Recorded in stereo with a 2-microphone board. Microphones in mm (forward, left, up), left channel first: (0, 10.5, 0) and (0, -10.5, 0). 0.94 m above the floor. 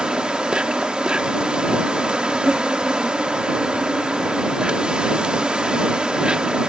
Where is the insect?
60° right (ahead or behind).